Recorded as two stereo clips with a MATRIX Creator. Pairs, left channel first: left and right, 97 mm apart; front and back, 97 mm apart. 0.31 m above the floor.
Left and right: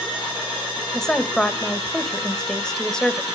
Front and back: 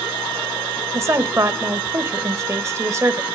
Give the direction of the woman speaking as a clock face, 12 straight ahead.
6 o'clock.